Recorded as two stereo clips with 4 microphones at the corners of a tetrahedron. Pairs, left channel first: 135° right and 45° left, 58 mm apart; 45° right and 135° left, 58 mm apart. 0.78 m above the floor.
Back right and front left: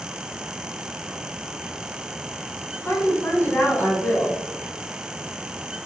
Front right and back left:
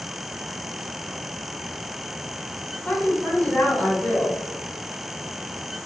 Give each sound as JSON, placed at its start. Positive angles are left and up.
{"t": 2.9, "sound": "a woman speaking", "azimuth_deg": -110, "distance_m": 1.1}